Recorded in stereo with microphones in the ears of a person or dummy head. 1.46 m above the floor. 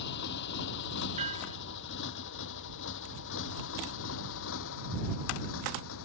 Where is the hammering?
35° right (ahead or behind).